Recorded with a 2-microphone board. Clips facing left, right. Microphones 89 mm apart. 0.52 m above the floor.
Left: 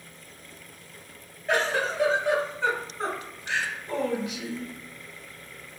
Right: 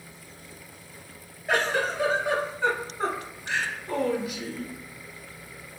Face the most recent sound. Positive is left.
turn(degrees=-5)  # may be behind; listen again after turning